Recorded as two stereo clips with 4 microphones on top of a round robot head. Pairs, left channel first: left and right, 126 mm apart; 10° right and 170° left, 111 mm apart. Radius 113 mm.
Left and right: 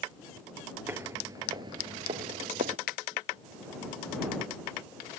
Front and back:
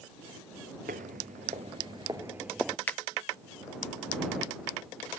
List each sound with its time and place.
0.9 s footsteps: 160° right; by 2.8 s 95° right
2.9 s a finger snap: 70° left